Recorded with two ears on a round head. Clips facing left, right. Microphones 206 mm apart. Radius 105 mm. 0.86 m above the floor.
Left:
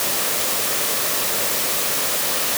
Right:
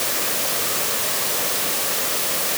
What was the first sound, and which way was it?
Only background noise.